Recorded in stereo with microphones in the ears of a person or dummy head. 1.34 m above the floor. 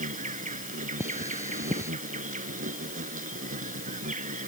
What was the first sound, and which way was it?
An insect, 40° right (ahead or behind).